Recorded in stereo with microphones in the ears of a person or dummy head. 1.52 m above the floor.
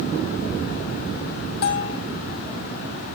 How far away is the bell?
About 1.3 m.